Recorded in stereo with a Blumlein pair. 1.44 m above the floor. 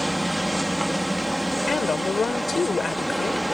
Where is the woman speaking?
15° left.